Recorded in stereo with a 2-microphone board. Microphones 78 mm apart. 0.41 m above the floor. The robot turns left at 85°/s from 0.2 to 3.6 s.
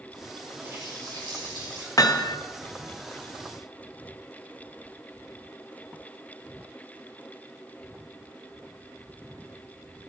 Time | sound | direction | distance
0.6 | a running tap | 30° right | 6 m
2.0 | hammering | 125° left | 0.9 m